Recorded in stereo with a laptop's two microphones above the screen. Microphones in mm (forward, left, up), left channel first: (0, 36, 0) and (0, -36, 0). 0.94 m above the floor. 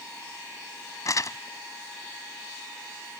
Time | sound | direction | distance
1.1 | crumpling | 50° left (ahead or behind) | ?